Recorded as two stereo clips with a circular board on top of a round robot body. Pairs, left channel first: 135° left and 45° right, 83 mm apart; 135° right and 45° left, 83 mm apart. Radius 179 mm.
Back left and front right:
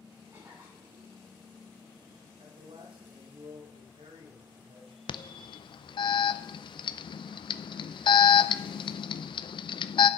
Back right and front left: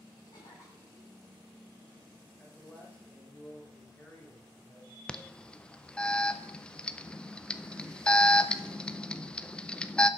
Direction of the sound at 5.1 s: 150° left.